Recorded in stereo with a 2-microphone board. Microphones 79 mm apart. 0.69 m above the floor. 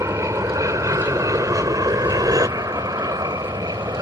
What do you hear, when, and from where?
0.0 s an aircraft: 40° right (ahead or behind); by 4.0 s 50° right (ahead or behind)